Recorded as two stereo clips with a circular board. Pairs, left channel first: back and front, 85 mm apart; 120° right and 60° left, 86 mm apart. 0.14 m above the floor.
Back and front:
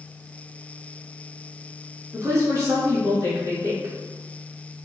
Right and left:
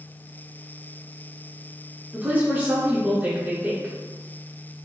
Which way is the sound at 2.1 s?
10° left.